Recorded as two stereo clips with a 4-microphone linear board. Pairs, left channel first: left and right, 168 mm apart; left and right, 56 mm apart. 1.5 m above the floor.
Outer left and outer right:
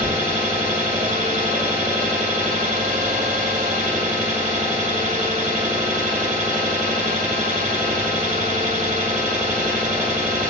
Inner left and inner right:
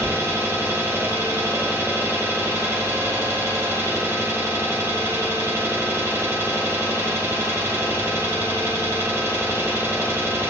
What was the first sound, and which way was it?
An engine running, 50° right (ahead or behind).